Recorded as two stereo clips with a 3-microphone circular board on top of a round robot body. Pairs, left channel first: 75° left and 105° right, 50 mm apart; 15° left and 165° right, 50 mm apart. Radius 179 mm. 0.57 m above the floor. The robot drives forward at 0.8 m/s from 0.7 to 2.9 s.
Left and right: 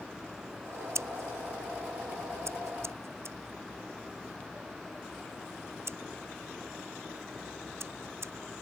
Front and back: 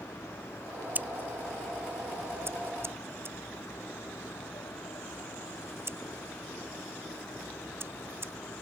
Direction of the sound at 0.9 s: 115° right.